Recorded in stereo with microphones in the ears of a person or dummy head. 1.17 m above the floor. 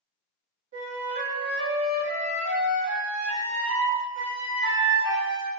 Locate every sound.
0.7 s a flute: 55° right (ahead or behind), 1.1 m